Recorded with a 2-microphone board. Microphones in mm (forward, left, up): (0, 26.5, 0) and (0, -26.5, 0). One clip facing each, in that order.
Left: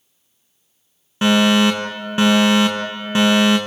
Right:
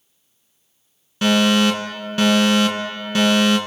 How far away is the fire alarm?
About 5 m.